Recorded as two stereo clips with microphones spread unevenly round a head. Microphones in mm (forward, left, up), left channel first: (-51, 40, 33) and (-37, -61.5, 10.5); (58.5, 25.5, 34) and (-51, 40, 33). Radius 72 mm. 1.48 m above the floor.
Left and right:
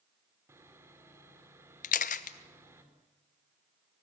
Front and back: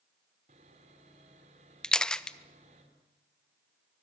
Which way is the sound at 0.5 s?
145° right.